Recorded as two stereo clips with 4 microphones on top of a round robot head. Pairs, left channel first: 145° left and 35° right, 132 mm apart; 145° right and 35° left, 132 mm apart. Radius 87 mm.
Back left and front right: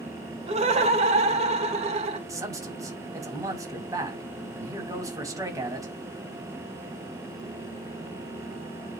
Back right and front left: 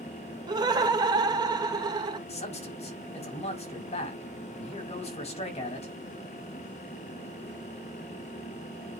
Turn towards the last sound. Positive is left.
turn(degrees=-105)